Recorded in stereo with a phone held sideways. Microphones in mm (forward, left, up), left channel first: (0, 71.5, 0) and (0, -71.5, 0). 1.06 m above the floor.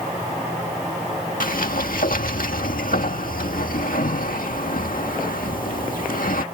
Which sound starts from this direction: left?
A sliding door, at 1.4 s.